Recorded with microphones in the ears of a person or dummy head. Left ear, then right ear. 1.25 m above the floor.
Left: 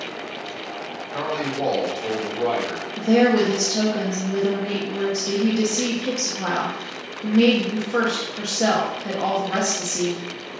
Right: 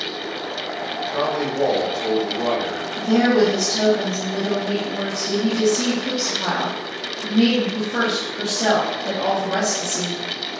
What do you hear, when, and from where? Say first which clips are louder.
1.1 s a man speaking: right 3 dB; 10° left (ahead or behind), 1.4 m
3.0 s a woman speaking: even; 45° left (ahead or behind), 0.9 m